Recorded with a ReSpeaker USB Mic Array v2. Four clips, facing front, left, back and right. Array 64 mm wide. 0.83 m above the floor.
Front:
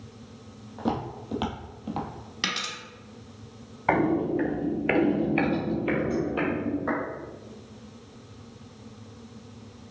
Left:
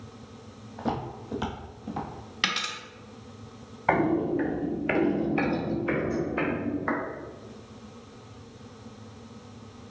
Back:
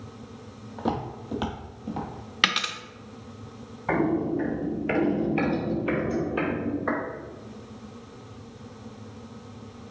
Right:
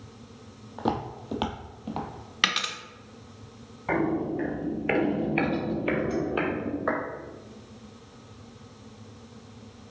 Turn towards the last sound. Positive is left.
turn(degrees=-100)